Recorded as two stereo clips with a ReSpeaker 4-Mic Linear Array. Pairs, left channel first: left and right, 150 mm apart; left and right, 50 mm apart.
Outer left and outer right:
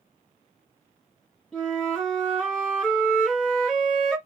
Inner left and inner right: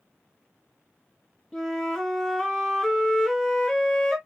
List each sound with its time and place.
1.5 s a flute: centre (ahead or behind), 1.4 m